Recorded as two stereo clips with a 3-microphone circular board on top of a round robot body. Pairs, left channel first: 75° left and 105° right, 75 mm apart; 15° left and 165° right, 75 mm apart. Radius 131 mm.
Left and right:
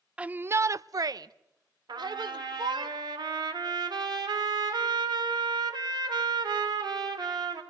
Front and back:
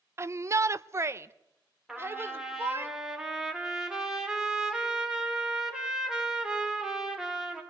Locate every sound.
0.2 s a shout: 170° right, 0.5 m; by 2.9 s 105° right, 1.6 m
1.9 s a trumpet: 85° right, 3 m